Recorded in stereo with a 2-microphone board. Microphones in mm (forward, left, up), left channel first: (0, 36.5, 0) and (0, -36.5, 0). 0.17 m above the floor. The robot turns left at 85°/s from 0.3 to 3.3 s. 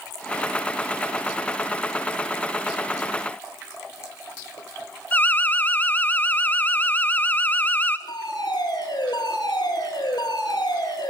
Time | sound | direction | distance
5.1 | an alarm | 25° left (ahead or behind) | 1.5 m
8.1 | a fire alarm | 70° left (ahead or behind) | 8 m